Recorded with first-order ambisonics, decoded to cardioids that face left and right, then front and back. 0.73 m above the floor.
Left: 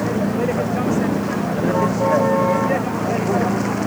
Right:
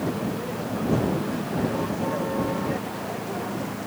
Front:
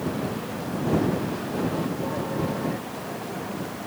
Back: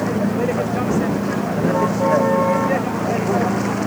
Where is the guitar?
I don't hear a guitar.